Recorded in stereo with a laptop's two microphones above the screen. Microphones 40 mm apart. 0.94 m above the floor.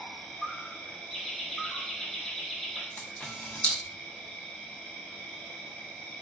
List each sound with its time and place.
0.0 s an insect: 35° left (ahead or behind), 1.2 m
1.1 s laughter: 15° left (ahead or behind), 0.8 m
3.0 s a camera shutter: 30° left (ahead or behind), 0.9 m